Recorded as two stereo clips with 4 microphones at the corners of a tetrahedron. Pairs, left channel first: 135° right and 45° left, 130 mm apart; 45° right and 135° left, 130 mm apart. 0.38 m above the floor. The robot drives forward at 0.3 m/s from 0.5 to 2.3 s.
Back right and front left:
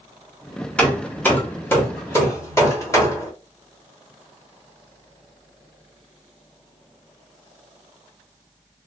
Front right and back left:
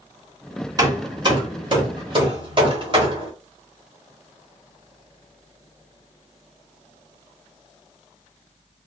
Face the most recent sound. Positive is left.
turn(degrees=165)